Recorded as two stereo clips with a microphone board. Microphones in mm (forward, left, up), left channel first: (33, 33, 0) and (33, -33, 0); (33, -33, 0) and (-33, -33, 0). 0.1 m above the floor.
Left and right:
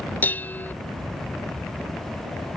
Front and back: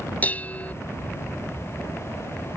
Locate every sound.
0.2 s dishes clattering: 50° left